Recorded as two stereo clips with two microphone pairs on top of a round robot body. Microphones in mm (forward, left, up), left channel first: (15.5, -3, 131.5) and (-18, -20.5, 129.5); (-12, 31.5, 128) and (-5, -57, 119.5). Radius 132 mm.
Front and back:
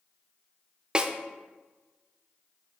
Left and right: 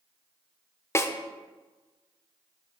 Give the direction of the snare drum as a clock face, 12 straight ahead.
7 o'clock.